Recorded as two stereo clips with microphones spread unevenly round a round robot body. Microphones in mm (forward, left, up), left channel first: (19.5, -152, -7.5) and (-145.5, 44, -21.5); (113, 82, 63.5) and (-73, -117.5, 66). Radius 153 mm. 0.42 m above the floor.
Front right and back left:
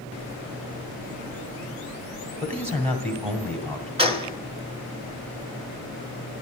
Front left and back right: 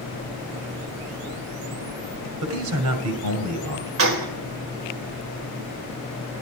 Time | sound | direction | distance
2.4 | a man speaking | 165° right | 2 m
4.0 | a gunshot | 165° right | 1.7 m